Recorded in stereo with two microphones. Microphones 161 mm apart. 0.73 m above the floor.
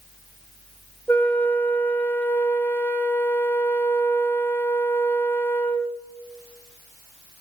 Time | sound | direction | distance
1.1 | a flute | 10° left (ahead or behind) | 0.6 m